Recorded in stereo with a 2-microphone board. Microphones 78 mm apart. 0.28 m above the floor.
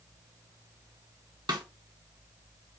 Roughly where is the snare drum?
Right.